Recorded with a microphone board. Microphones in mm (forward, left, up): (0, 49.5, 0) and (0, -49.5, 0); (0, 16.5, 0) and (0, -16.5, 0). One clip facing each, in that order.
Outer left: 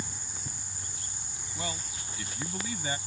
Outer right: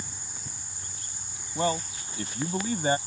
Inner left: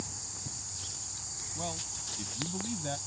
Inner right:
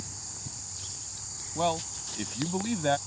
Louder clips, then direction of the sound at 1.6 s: Outer right 11 dB, inner right 12 dB; 45° right (ahead or behind).